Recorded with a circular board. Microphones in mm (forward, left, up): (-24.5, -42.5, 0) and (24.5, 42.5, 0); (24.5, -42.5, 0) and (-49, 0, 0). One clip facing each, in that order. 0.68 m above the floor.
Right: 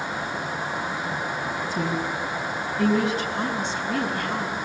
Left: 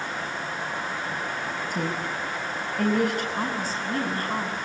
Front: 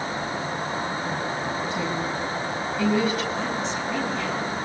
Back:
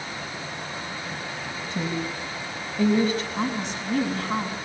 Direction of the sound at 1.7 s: 95° left.